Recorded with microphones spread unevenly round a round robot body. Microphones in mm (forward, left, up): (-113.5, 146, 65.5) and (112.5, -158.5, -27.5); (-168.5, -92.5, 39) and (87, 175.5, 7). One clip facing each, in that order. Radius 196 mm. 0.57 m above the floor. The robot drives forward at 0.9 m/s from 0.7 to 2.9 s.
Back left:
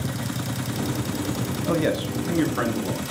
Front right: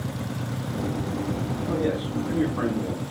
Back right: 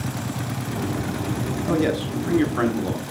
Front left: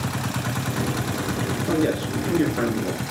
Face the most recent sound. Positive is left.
turn(degrees=165)